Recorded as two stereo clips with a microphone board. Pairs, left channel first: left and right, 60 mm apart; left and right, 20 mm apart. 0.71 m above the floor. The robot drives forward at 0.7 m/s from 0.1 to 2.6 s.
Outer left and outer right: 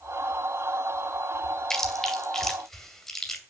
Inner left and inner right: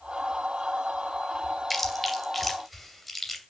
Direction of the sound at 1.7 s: 10° left (ahead or behind).